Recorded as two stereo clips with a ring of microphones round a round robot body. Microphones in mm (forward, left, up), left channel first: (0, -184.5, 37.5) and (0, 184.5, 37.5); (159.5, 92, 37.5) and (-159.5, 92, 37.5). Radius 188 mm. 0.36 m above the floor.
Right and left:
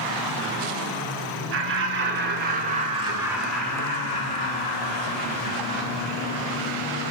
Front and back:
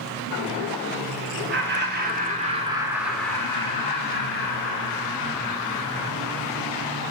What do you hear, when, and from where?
1.5 s laughter: 135° left, 1.7 m; by 6.6 s 35° right, 3 m